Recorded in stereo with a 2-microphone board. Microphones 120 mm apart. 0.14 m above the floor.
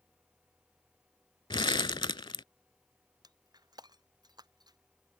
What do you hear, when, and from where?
1.5 s crumpling: 40° left (ahead or behind)
3.2 s breaking glass: 35° right (ahead or behind)